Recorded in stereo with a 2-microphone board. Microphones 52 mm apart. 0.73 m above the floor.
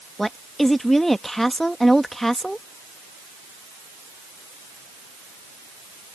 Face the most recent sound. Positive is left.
turn(degrees=5)  # may be behind; listen again after turning